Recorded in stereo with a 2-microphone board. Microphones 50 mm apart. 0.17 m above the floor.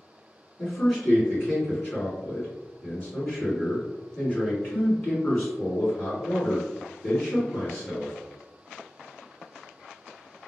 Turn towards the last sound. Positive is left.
turn(degrees=35)  # may be behind; listen again after turning